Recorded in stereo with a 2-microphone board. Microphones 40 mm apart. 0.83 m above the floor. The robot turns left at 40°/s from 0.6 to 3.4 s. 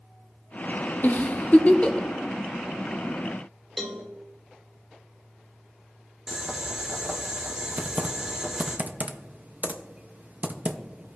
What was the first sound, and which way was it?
A giggle, 45° left (ahead or behind).